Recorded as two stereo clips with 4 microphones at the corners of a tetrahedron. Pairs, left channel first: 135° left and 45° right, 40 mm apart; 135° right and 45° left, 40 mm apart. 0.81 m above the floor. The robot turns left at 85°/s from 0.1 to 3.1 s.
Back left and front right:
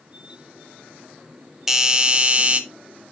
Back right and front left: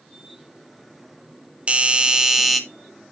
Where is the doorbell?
25° left, 0.9 m; by 2.6 s 50° right, 0.9 m.